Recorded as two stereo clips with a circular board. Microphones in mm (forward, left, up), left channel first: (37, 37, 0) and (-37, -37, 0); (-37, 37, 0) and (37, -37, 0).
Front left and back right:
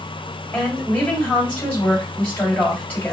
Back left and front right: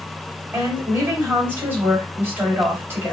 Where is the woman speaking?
5° right, 1.7 m.